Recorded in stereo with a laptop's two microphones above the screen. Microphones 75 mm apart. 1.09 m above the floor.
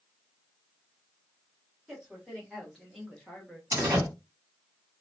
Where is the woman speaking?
Centre (ahead or behind), 1.9 m; by 3.6 s 5° left (ahead or behind), 1.0 m.